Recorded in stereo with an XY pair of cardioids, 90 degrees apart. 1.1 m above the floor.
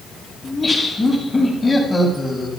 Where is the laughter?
15° left, 7.5 m.